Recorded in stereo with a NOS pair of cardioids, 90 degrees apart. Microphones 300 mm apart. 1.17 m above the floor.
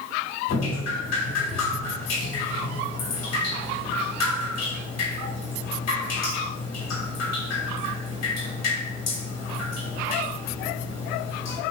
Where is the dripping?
60° left, 2.5 m.